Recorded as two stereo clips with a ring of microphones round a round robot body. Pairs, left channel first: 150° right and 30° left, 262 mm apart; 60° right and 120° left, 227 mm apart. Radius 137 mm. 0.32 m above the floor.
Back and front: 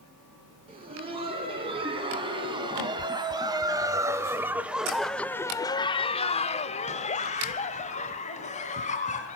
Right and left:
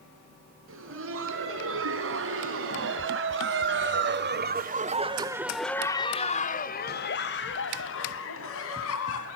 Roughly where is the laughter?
Left.